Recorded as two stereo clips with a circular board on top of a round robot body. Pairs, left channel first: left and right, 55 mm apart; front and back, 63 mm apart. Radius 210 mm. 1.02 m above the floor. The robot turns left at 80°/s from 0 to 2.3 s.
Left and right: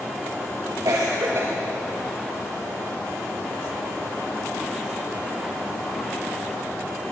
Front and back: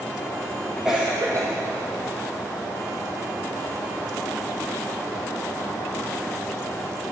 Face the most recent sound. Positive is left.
turn(degrees=145)